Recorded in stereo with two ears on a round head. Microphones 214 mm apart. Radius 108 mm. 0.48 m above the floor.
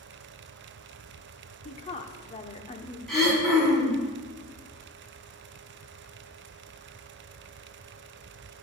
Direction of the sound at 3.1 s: Centre (ahead or behind).